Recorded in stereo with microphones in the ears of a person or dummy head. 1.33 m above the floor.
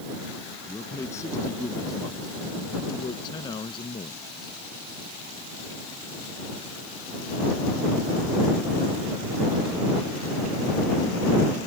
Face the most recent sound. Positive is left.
turn(degrees=30)  # may be behind; listen again after turning